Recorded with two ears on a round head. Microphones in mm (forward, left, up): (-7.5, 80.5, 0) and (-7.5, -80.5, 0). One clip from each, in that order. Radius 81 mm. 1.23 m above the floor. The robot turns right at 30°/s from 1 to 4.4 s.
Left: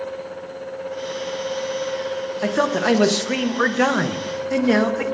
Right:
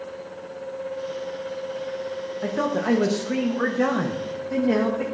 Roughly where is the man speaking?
Left.